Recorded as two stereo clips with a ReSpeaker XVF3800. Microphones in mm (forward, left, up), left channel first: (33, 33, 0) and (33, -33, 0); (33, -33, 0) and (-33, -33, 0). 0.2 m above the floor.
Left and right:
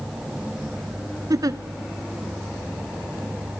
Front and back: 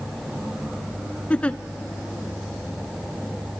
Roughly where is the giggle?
Right.